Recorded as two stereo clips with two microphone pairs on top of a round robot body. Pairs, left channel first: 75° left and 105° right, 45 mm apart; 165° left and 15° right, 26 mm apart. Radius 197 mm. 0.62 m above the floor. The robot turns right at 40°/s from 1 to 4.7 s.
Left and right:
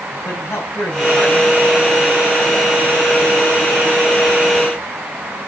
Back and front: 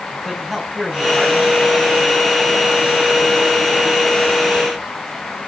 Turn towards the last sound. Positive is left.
turn(degrees=-145)